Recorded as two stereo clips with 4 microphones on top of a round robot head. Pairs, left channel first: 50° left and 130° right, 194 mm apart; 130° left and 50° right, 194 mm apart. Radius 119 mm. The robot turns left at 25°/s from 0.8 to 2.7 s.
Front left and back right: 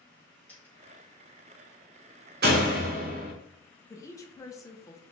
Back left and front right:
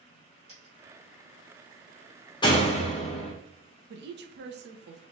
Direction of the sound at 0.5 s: 25° right.